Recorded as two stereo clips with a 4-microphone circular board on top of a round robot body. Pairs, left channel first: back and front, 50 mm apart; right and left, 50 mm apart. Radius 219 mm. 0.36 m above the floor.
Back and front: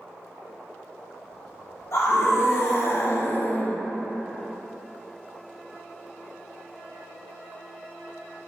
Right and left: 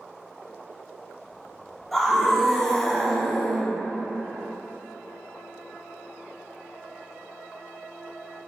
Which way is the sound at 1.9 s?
175° right.